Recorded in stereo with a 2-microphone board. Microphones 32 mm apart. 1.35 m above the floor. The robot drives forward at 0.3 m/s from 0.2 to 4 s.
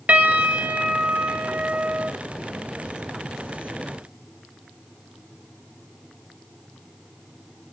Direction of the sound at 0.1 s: 50° right (ahead or behind).